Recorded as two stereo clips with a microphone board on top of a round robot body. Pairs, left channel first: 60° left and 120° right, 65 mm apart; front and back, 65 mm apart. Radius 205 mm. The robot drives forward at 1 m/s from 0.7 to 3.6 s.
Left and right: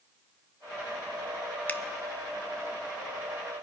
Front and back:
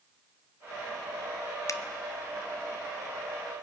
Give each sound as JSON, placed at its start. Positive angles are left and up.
{"t": 1.7, "sound": "a finger snap", "azimuth_deg": 0, "distance_m": 0.8}